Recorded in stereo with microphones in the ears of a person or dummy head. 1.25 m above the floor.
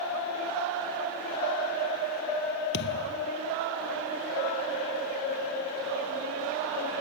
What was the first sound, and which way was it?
A thud, 60° left (ahead or behind).